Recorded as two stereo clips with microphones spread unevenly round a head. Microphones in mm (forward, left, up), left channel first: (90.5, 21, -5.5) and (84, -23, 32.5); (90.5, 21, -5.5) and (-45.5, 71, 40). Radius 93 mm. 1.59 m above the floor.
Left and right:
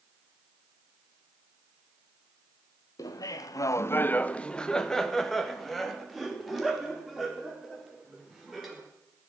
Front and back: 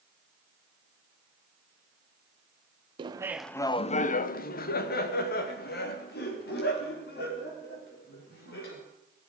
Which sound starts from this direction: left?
Laughter, at 3.0 s.